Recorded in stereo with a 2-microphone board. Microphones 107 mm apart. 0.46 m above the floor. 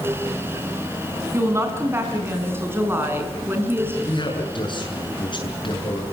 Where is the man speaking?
50° left (ahead or behind), 7 m.